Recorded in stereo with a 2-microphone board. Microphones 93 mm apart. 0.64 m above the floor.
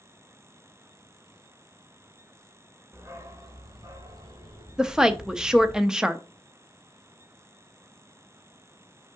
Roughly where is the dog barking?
Right.